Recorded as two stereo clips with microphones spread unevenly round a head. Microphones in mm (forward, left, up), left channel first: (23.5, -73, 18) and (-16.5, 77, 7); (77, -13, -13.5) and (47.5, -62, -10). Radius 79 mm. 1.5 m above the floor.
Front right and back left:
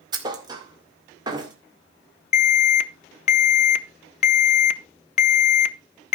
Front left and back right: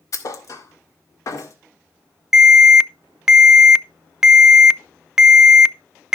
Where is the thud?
40° left, 1.8 m.